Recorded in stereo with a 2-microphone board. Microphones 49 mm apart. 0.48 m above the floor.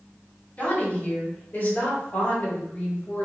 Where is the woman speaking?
30° left (ahead or behind), 2.0 m; by 3.2 s 50° left (ahead or behind), 1.4 m.